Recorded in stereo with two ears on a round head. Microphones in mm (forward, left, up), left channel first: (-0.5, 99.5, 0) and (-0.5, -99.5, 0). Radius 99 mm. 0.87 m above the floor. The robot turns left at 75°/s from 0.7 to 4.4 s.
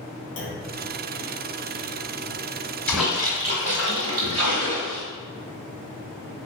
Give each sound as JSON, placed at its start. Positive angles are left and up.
{"t": 0.4, "sound": "a clunk", "side_deg": 55, "distance_m": 0.9}
{"t": 2.9, "sound": "a splash", "azimuth_deg": 10, "distance_m": 1.3}